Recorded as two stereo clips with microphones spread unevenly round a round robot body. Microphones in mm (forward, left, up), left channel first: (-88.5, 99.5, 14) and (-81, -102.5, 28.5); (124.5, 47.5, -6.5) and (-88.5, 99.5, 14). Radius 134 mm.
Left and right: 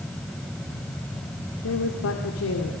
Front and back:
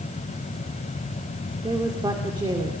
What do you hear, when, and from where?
1.6 s a woman speaking: 95° left, 2.5 m